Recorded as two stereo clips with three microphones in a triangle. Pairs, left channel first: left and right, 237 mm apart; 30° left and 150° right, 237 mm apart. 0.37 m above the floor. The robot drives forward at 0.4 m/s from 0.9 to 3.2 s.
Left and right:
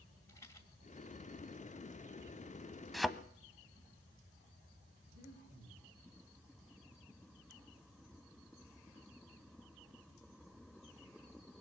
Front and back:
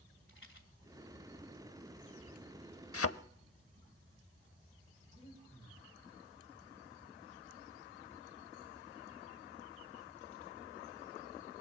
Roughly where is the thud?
Ahead.